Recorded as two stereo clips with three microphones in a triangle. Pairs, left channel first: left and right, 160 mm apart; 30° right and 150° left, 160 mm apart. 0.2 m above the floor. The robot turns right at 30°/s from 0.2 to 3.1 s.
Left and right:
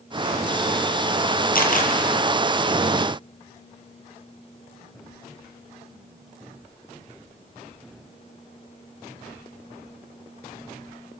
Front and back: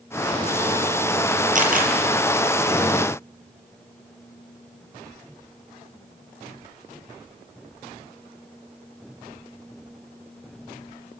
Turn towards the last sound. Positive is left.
turn(degrees=160)